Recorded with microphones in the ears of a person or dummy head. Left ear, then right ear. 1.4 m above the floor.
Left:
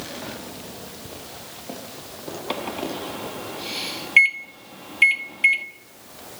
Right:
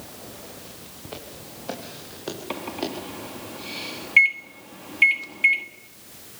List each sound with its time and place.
1.1 s footsteps: 65° right (ahead or behind), 6 m; by 2.9 s 70° right (ahead or behind), 6.5 m
2.5 s a microwave: 15° left (ahead or behind), 1.5 m